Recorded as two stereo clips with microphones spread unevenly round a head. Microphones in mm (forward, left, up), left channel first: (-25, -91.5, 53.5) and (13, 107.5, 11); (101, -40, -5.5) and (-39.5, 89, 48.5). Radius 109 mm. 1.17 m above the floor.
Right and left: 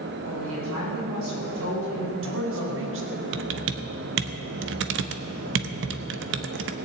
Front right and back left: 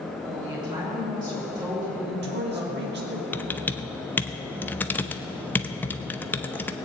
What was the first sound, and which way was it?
A woman speaking, 70° left.